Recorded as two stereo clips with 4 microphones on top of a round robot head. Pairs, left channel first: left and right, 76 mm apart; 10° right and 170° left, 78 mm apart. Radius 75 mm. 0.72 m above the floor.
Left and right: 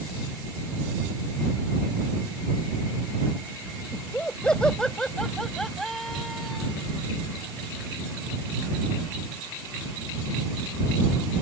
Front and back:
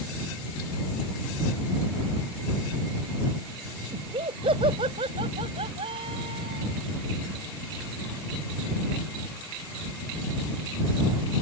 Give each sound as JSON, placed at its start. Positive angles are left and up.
{"t": 3.9, "sound": "laughter", "azimuth_deg": 165}